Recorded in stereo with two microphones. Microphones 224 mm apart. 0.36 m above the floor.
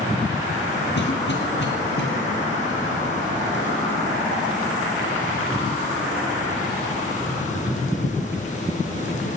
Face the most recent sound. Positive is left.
turn(degrees=55)  # may be behind; listen again after turning